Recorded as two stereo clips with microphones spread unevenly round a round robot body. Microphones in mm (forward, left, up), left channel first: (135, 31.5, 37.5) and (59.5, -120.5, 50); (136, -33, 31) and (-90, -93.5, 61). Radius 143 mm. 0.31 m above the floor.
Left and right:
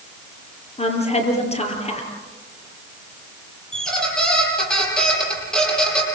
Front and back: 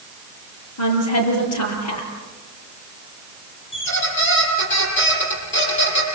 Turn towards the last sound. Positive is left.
turn(degrees=-20)